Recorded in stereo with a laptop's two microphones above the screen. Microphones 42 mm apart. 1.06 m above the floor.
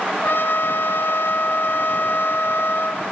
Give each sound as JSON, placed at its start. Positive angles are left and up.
{"t": 0.2, "sound": "a trumpet", "side_deg": 65, "distance_m": 1.3}